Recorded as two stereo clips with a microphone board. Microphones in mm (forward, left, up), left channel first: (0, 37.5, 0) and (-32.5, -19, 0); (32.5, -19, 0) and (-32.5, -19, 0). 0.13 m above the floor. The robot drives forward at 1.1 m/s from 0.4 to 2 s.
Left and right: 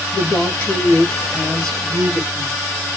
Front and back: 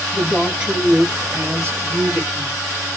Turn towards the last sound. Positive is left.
turn(degrees=145)